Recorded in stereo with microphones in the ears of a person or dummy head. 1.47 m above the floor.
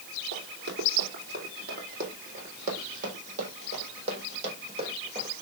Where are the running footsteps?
60° right (ahead or behind), 3.5 m; by 5.3 s 35° right (ahead or behind), 5 m.